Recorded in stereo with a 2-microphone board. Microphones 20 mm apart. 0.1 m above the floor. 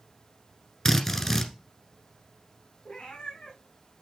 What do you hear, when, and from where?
0.8 s a drill: 15° left (ahead or behind), 1.6 m
2.9 s a cat meowing: 60° left (ahead or behind), 3.5 m